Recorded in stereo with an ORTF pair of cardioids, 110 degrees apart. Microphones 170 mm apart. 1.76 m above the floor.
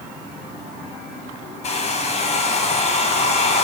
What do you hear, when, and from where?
1.6 s a hair dryer: 40° left, 7 m